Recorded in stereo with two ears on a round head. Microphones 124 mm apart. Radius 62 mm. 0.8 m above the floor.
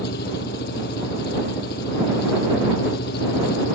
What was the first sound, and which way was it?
An engine running, 80° left.